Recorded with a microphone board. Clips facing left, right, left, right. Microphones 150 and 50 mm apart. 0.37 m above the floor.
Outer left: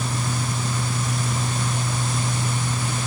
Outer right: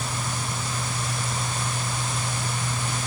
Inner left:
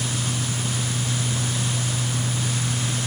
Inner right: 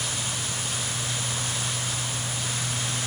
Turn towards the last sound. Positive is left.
No sound to turn to.